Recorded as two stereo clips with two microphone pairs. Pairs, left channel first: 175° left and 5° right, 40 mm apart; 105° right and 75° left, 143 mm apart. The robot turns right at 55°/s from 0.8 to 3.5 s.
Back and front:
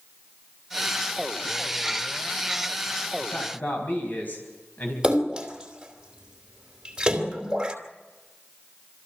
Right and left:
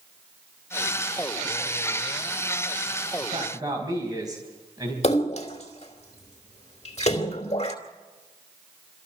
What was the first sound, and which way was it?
A man speaking, 120° left.